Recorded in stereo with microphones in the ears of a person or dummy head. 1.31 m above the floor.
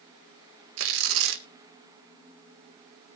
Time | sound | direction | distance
0.8 | tearing paper | 75° right (ahead or behind) | 1.8 m